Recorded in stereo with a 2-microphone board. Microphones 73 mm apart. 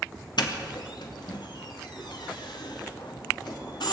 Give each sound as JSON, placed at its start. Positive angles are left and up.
{"t": 0.4, "sound": "a doorbell", "side_deg": 80, "distance_m": 2.5}